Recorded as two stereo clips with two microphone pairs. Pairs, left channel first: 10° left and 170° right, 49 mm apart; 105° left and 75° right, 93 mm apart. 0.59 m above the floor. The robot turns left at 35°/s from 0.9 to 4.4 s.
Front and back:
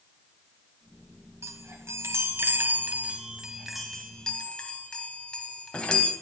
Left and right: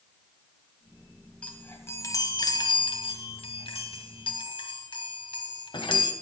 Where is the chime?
175° right, 1.9 m; by 6.1 s 80° left, 1.9 m.